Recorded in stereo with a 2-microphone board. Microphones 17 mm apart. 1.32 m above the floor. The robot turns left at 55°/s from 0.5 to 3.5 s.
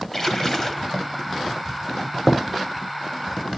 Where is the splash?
25° left (ahead or behind), 1.2 m.